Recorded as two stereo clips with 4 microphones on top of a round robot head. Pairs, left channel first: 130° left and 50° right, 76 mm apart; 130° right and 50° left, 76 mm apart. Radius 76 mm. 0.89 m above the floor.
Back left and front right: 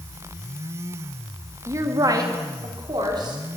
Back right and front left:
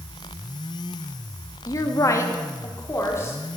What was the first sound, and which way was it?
A woman speaking, 95° right.